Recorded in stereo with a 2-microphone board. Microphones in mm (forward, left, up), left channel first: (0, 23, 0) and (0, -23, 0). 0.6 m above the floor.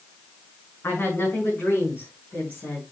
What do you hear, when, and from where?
0.8 s a woman speaking: 45° left (ahead or behind), 6 m; by 2.8 s 40° left (ahead or behind), 5.5 m